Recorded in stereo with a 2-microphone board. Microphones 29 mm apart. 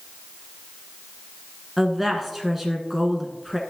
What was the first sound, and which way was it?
A woman speaking, centre (ahead or behind).